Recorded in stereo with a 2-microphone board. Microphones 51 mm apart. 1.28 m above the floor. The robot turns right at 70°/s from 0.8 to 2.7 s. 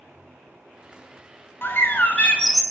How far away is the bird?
About 0.7 m.